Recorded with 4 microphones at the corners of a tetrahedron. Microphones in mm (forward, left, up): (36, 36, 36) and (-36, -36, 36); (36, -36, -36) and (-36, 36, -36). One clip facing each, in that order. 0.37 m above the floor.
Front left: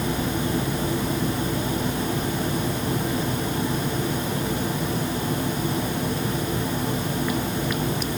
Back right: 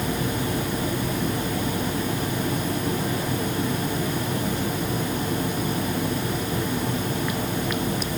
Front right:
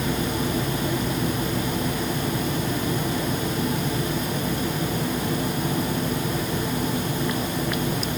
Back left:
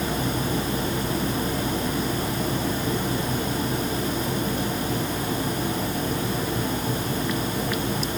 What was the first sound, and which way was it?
Only background noise.